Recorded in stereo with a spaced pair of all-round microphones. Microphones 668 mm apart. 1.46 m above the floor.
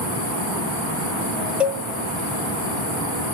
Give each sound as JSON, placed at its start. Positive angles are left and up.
{"t": 1.6, "sound": "a cowbell", "side_deg": 0, "distance_m": 0.9}